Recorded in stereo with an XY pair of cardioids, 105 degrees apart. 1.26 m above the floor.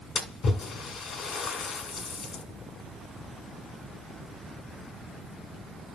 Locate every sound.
0.1 s a splash: 60° left, 2.0 m